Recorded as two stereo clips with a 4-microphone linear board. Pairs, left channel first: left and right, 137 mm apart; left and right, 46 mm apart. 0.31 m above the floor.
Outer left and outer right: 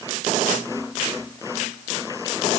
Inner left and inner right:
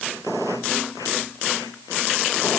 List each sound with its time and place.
Only background noise.